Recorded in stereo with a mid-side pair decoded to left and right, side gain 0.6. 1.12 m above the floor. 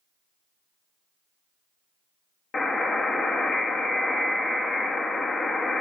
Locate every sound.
2.5 s a buzzer: 30° left, 1.6 m